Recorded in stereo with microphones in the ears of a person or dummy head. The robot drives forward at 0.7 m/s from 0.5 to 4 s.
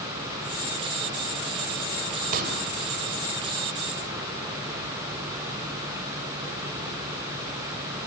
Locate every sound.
2.3 s a pop: 45° right (ahead or behind), 4 m; by 2.6 s 50° right (ahead or behind), 3.5 m